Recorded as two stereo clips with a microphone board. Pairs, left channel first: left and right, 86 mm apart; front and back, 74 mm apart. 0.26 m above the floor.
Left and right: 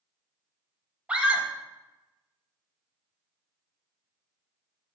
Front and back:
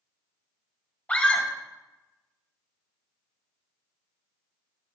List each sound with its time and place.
1.1 s a scream: 40° right, 1.5 m